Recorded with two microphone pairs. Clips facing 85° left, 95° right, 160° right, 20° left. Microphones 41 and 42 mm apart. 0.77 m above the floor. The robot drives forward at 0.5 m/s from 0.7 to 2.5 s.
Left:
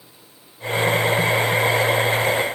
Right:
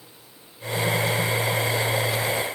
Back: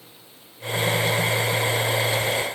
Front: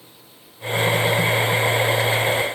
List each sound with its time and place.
Only background noise.